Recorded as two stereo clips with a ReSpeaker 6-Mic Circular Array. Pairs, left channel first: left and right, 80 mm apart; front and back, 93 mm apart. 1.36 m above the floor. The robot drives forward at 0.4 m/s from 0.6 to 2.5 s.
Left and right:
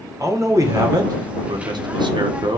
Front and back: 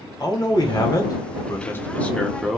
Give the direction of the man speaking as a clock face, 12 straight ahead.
1 o'clock.